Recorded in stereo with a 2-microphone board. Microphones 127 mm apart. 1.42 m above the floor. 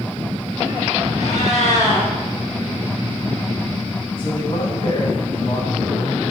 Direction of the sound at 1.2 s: 65° left (ahead or behind).